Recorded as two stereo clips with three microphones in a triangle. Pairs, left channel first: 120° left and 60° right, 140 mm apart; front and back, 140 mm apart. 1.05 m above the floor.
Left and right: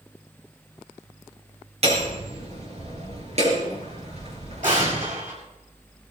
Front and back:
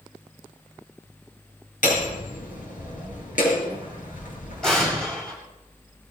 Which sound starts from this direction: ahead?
Hammering, at 1.8 s.